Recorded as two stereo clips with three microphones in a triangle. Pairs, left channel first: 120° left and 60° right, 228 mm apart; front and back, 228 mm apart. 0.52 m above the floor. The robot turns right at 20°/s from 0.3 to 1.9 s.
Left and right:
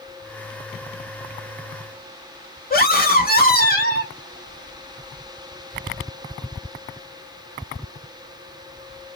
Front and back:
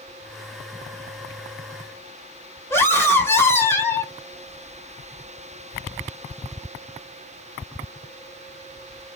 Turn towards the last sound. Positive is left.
turn(degrees=80)